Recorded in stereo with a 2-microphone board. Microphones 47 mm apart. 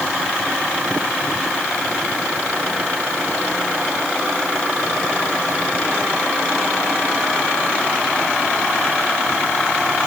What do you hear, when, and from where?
Only background noise.